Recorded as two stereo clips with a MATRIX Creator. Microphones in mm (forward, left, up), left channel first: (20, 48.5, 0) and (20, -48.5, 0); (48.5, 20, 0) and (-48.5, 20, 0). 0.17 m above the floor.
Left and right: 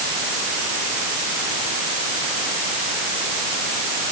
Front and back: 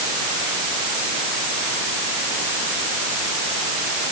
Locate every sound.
Only background noise.